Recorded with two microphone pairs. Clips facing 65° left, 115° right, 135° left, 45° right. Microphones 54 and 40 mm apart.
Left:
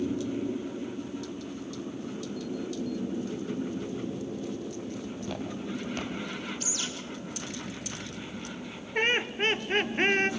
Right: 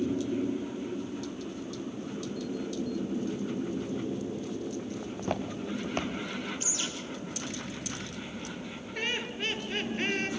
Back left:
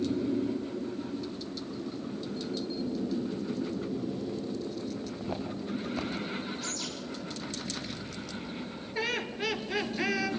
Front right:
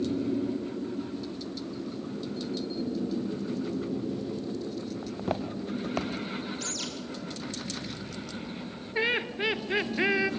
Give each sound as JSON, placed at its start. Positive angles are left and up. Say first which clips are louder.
{"t": 5.0, "sound": "footsteps", "louder": "right 2 dB, front right 3 dB", "azimuth_deg": -70, "distance_m": 3.5}
{"t": 6.6, "sound": "a bird", "louder": "even, front right 1 dB", "azimuth_deg": -50, "distance_m": 7.0}
{"t": 8.9, "sound": "laughter", "louder": "left 7 dB, front right 4 dB", "azimuth_deg": 20, "distance_m": 2.5}